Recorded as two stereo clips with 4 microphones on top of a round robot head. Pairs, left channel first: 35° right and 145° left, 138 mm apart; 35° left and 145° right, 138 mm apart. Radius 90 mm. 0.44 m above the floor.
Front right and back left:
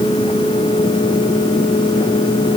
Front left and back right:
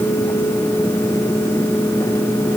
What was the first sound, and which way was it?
Only background noise.